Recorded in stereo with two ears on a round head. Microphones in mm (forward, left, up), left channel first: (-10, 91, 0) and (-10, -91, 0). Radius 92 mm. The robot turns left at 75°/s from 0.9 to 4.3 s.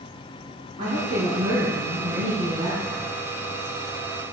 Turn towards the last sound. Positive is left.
turn(degrees=65)